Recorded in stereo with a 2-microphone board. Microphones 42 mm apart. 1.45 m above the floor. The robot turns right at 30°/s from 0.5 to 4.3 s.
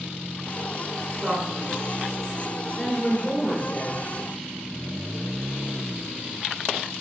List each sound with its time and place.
1.2 s a man speaking: 25° right (ahead or behind), 1.8 m; by 4.0 s 60° left (ahead or behind), 1.8 m